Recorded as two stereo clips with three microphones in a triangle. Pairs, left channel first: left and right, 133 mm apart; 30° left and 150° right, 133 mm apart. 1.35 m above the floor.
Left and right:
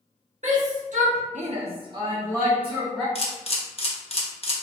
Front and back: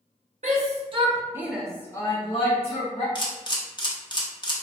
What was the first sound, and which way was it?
A shout, 120° right.